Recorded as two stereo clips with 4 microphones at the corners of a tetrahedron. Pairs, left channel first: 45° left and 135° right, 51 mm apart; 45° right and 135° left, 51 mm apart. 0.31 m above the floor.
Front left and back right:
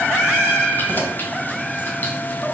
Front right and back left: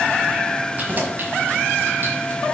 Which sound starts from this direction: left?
Keys jangling, at 0.8 s.